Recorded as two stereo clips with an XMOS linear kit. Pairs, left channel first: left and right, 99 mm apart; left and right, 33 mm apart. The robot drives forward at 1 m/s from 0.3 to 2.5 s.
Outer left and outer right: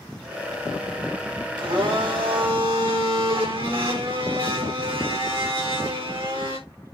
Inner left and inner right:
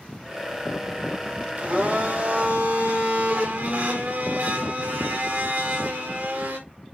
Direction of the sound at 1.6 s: 50° right (ahead or behind).